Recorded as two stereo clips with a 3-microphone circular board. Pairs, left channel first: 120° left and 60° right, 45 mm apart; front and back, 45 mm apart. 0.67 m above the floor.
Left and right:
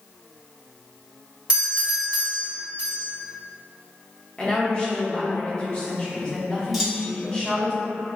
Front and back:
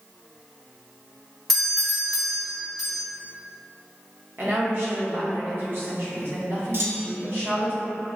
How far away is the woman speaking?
About 1.2 m.